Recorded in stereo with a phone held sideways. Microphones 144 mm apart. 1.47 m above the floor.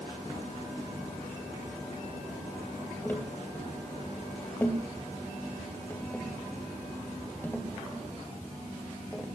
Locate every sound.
3.0 s tapping: 15° left (ahead or behind), 3 m